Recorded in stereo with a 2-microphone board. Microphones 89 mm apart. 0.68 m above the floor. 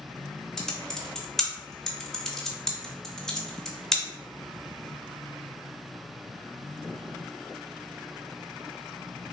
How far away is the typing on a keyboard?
About 0.6 m.